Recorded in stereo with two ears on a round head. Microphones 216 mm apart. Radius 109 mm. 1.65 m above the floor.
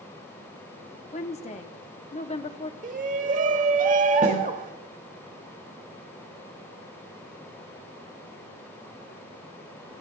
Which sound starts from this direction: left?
A woman speaking, at 1.1 s.